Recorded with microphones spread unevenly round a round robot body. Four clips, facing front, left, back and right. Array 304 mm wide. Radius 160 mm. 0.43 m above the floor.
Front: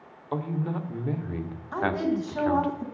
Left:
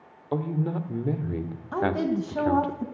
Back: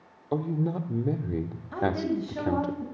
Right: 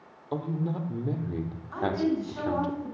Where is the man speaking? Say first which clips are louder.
Left 3 dB, back 2 dB; 145° left, 1.4 m.